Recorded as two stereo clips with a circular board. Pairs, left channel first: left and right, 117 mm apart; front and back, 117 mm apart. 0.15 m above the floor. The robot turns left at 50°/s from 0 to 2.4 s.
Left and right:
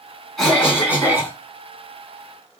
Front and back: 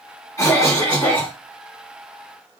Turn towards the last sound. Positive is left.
turn(degrees=-100)